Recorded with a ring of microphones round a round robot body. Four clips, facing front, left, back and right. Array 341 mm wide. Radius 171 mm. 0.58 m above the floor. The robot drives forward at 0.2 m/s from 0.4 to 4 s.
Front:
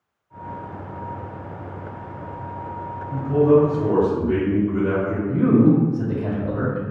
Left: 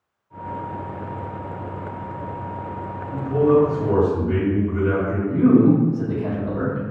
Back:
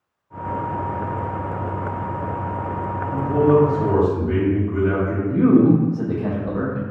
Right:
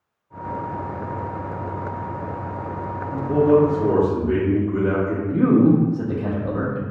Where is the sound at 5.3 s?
130° right, 0.7 m.